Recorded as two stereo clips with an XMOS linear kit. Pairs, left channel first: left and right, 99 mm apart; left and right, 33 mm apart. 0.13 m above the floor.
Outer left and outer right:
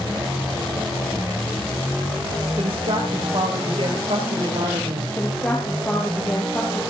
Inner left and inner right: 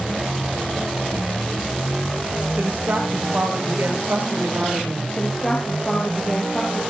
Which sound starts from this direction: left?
A woman speaking, at 5.2 s.